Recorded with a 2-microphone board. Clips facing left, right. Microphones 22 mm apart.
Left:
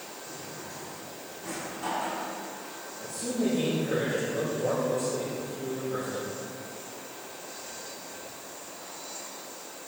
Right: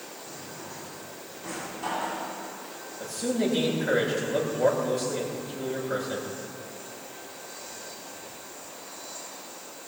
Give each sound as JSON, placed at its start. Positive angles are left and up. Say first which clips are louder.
{"t": 0.3, "sound": "a drawer", "louder": "even", "side_deg": -15, "distance_m": 6.5}
{"t": 3.0, "sound": "a man speaking", "louder": "right 3 dB", "side_deg": -75, "distance_m": 8.0}